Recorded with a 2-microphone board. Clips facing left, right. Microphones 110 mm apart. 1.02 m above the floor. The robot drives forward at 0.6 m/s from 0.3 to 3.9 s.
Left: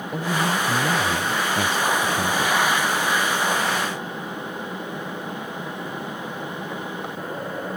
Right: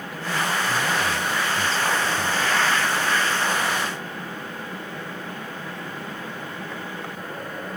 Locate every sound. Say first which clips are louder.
0.1 s a man speaking: left 3 dB; 55° left (ahead or behind); by 2.5 s 50° left (ahead or behind)